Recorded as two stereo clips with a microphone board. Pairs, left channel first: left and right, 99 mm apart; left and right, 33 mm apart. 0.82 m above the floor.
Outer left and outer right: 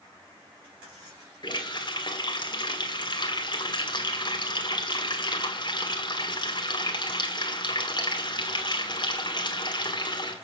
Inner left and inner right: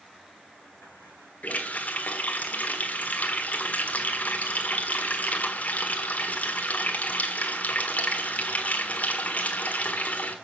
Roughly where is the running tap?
Left.